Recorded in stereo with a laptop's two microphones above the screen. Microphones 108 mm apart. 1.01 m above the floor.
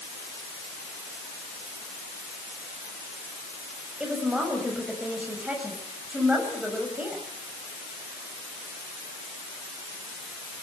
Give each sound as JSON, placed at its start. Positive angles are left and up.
{"t": 4.0, "sound": "a woman speaking", "side_deg": -10, "distance_m": 6.5}